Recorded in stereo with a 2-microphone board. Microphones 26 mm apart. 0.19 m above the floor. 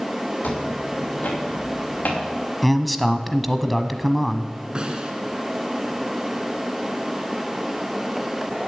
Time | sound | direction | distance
0.4 | footsteps | 75° left (ahead or behind) | 7 m
2.6 | a man speaking | centre (ahead or behind) | 1.1 m
4.8 | a snare drum | 35° right (ahead or behind) | 1.8 m